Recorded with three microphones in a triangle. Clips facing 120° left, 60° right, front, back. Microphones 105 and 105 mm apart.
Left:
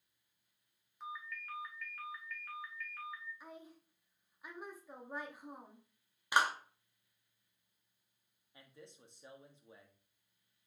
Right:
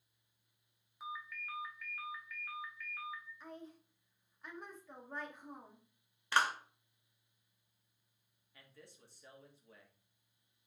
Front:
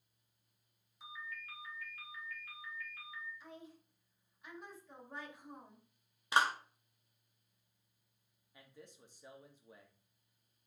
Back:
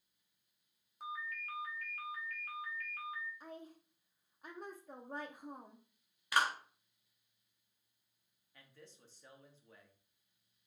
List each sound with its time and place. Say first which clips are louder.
1.0 s a ringtone: even, back 5 dB; 145° right, 1.3 m
3.4 s a woman speaking: right 2 dB, back 3 dB; 160° right, 0.7 m
6.3 s a clap: left 1 dB, front 2 dB; 55° left, 0.9 m
8.5 s a man speaking: left 3 dB, front 3 dB; 65° left, 1.0 m